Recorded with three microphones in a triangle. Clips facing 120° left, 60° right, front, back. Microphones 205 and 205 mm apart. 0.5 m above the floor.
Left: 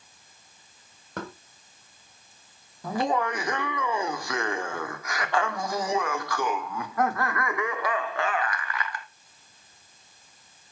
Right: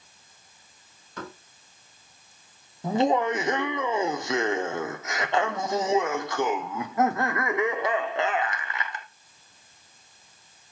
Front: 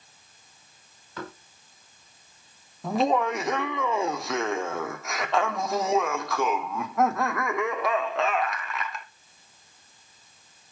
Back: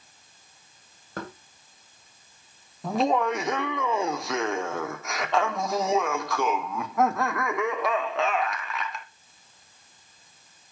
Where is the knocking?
140° left, 2.5 m.